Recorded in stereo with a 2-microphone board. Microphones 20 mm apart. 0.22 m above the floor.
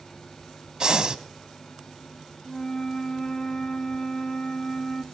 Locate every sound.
0.8 s breathing: 40° right (ahead or behind), 0.9 m
2.5 s a flute: 35° left (ahead or behind), 0.8 m